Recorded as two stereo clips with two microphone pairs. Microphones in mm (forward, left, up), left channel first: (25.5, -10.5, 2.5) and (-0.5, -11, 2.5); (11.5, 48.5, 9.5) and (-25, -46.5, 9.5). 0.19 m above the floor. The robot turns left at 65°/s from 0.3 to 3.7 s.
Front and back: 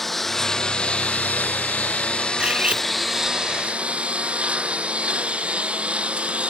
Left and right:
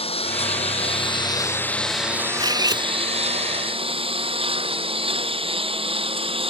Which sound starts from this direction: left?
A lawn mower, at 0.0 s.